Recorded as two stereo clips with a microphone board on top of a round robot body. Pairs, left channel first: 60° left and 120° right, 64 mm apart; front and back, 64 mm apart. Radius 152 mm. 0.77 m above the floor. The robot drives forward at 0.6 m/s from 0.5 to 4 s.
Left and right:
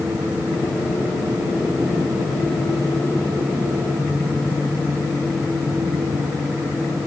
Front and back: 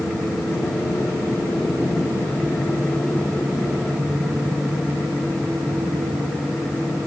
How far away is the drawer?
I don't hear a drawer.